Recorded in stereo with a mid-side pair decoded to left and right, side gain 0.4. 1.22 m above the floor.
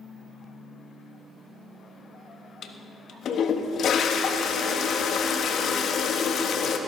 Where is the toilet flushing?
65° left, 1.4 m.